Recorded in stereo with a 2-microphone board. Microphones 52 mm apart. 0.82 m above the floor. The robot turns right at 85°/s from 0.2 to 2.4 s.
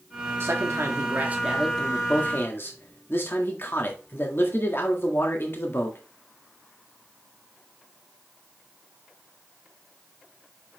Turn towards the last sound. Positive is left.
turn(degrees=55)